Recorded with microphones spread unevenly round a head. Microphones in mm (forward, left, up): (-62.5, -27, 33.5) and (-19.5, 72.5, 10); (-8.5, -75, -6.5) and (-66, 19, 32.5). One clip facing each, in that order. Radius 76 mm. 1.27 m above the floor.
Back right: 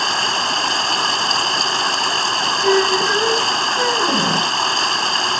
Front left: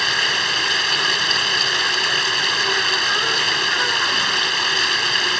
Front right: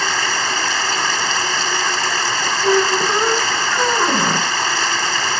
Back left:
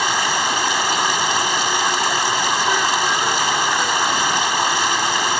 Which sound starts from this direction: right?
A squeak, at 2.6 s.